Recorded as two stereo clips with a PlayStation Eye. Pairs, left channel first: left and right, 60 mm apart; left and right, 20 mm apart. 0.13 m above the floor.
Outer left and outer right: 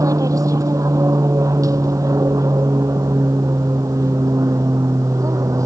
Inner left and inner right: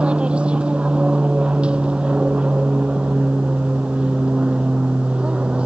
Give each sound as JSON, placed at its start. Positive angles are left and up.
{"t": 0.0, "sound": "an aircraft", "side_deg": -70}